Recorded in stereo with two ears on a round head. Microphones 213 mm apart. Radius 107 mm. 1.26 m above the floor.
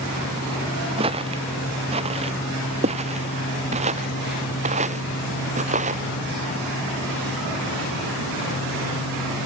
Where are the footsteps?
25° right (ahead or behind); by 6.0 s 30° right (ahead or behind).